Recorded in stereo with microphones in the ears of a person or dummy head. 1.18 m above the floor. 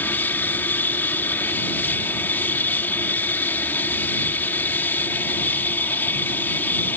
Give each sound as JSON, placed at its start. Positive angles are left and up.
{"t": 0.0, "sound": "an aircraft", "side_deg": 10}